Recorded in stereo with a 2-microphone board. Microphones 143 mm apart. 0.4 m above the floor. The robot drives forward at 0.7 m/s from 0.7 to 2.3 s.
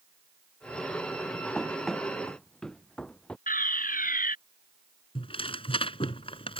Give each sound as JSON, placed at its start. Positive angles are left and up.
{"t": 1.6, "sound": "running footsteps", "side_deg": 0}
{"t": 3.5, "sound": "a fire alarm", "side_deg": 75}
{"t": 5.2, "sound": "tearing paper", "side_deg": 40}